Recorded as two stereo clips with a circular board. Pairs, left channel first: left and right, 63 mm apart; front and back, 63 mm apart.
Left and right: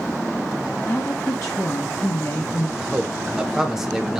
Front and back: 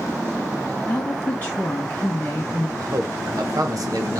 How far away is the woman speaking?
About 0.9 m.